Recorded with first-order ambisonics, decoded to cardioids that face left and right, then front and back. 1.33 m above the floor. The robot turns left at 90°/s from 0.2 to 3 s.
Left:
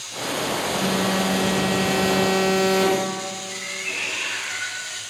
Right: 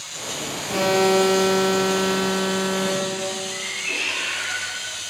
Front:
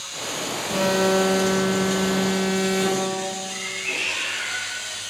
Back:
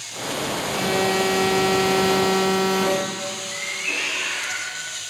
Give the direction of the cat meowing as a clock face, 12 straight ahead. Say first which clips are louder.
Right 2 dB, back 4 dB; 6 o'clock.